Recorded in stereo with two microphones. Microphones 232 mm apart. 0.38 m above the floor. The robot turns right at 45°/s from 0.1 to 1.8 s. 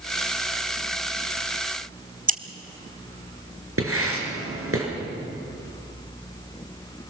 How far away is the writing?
About 5.5 m.